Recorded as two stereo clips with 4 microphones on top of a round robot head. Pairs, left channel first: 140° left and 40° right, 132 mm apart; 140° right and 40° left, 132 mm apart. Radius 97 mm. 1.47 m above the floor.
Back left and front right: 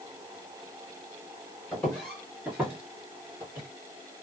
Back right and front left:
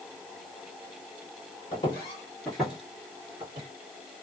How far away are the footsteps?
About 1.6 m.